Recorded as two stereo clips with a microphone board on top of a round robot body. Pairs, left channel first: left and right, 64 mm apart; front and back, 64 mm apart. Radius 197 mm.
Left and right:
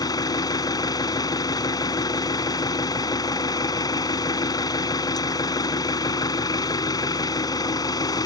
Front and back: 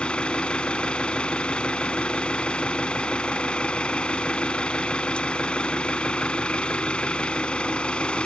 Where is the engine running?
75° left.